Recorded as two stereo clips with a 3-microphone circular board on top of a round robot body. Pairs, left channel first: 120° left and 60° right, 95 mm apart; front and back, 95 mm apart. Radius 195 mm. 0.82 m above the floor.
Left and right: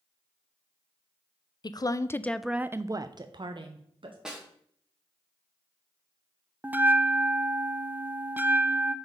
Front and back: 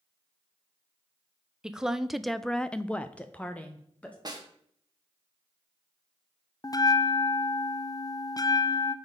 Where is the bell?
Straight ahead, 0.7 m.